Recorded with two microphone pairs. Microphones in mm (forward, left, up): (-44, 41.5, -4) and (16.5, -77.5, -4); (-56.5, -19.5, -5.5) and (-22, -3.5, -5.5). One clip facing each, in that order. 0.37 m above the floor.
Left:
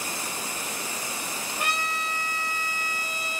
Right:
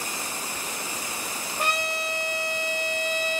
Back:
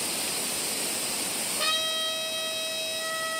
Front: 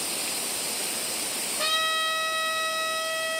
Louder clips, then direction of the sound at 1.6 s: Right 3 dB, front 3 dB; 60° right.